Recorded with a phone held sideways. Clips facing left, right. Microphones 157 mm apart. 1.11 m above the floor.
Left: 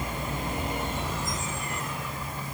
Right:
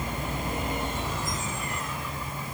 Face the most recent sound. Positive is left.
No sound to turn to.